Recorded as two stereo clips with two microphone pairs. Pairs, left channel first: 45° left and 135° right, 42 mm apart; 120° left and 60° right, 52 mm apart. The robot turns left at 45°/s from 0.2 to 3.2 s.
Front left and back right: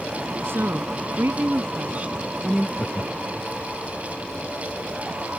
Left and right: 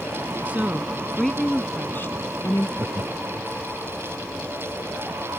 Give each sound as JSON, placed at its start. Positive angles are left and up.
{"t": 0.5, "sound": "a woman speaking", "azimuth_deg": -125}
{"t": 2.8, "sound": "laughter", "azimuth_deg": -15}